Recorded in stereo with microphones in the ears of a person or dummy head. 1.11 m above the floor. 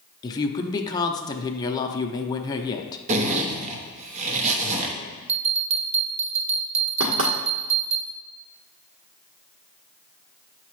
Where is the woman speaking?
15° left (ahead or behind), 0.6 m.